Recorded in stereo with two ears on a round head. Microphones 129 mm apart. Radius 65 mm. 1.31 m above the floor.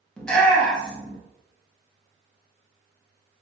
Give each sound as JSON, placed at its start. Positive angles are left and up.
{"t": 0.2, "sound": "a shout", "side_deg": 5, "distance_m": 0.8}